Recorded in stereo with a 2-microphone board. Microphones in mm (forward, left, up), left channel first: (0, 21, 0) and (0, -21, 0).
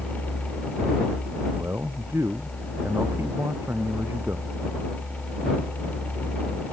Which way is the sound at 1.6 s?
85° right.